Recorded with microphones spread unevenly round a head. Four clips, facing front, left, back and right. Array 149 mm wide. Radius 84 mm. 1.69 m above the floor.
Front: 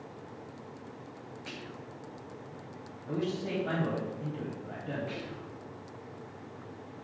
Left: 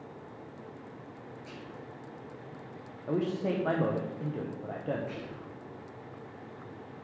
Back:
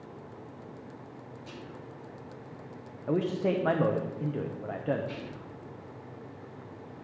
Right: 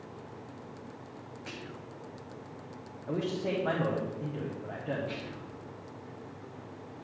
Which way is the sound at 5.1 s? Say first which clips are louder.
Even, even; 15° left.